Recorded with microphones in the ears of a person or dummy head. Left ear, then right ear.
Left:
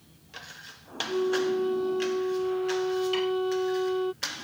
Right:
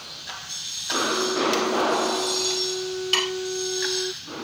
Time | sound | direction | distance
1.1 | a flute | 70° left (ahead or behind) | ?
3.1 | dishes clattering | 60° right (ahead or behind) | ?